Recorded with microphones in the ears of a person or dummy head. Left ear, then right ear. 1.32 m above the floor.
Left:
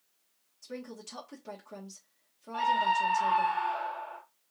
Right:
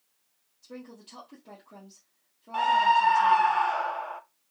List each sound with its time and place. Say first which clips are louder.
0.6 s a woman speaking: left 3 dB; 55° left (ahead or behind), 1.5 m
2.5 s a scream: right 5 dB; 55° right (ahead or behind), 0.6 m